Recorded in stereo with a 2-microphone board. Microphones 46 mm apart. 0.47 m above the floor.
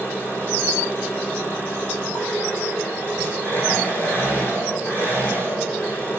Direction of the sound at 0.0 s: 50° left (ahead or behind).